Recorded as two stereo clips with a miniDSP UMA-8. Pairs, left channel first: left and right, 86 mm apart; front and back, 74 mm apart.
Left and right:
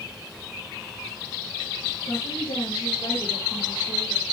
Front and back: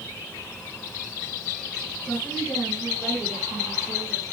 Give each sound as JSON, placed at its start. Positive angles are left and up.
{"t": 2.1, "sound": "a woman speaking", "azimuth_deg": 80, "distance_m": 6.5}